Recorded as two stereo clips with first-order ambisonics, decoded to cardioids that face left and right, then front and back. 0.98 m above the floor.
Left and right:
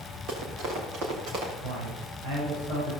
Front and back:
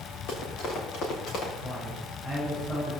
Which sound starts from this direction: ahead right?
Running footsteps, at 0.3 s.